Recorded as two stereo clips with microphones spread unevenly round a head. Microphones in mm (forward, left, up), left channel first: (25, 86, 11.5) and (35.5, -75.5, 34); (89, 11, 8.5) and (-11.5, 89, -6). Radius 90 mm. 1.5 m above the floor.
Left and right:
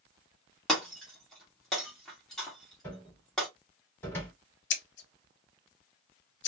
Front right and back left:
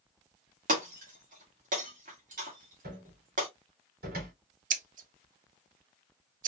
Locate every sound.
0.7 s breaking glass: 175° right, 1.9 m
2.8 s a cupboard door: 175° left, 2.5 m
4.7 s scissors: 125° left, 0.7 m